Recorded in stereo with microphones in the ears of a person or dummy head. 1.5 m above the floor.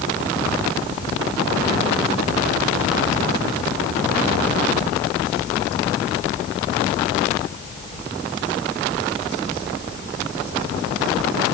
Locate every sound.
Only background noise.